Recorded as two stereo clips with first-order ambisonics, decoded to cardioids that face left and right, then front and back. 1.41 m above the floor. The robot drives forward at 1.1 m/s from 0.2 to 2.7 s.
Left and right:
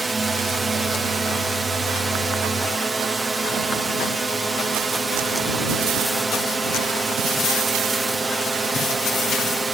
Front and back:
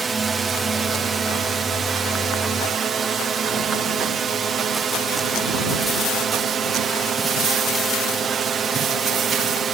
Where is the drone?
140° right; by 9.7 s 155° right.